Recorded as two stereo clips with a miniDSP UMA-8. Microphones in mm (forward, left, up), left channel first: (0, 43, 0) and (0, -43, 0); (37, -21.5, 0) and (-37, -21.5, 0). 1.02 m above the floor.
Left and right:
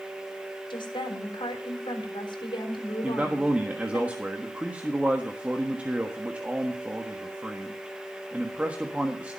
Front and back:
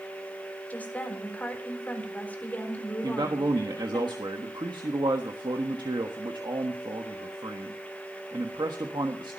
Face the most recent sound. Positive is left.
turn(degrees=-165)